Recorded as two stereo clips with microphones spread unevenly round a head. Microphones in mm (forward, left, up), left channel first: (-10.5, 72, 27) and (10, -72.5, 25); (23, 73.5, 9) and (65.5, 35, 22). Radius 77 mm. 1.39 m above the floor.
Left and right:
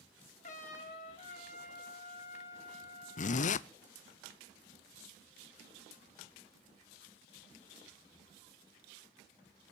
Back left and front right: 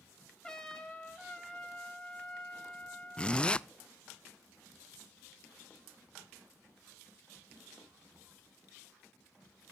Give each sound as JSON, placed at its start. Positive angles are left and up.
{"t": 0.4, "sound": "a trumpet", "azimuth_deg": 60, "distance_m": 5.0}
{"t": 3.2, "sound": "a zipper", "azimuth_deg": 80, "distance_m": 0.5}